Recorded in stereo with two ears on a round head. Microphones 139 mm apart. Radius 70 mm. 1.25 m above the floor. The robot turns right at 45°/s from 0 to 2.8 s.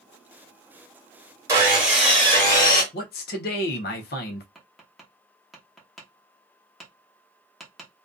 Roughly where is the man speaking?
Left.